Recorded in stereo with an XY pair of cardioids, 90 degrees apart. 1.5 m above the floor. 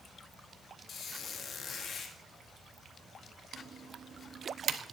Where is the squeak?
60° left, 2 m.